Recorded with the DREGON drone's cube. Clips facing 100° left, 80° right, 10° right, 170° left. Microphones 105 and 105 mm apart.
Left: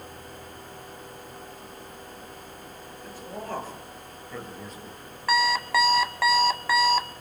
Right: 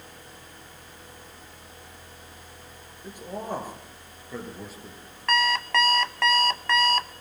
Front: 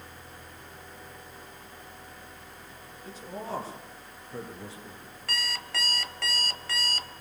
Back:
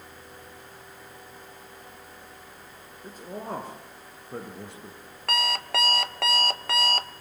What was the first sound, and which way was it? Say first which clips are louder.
A man speaking: right 3 dB, back 2 dB; 150° right.